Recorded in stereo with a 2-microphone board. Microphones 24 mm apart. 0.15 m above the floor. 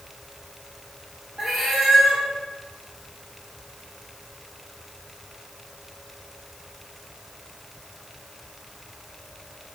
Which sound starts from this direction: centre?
A cat meowing, at 1.4 s.